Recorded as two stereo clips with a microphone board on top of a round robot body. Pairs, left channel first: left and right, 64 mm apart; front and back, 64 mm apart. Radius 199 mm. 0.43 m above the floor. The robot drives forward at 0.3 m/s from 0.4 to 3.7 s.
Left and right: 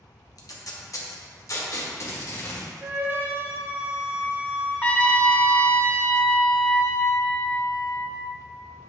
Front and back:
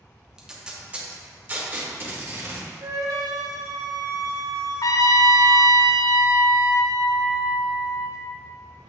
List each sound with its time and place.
0.4 s tape being pulled: 105° left, 1.0 m; by 2.7 s 135° left, 1.3 m
2.8 s a flute: 145° right, 0.6 m; by 5.7 s 155° right, 0.8 m
4.8 s a trumpet: 20° left, 0.6 m